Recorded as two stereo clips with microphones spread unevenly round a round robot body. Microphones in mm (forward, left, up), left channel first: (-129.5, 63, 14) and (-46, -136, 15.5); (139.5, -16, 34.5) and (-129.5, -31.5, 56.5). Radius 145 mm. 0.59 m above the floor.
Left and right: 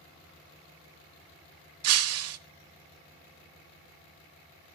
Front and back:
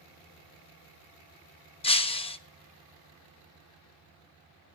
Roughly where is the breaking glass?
Ahead right.